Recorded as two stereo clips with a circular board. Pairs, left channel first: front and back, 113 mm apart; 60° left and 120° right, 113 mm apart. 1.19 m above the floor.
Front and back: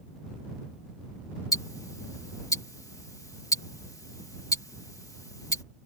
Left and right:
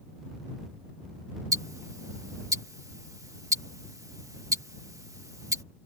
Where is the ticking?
60° right.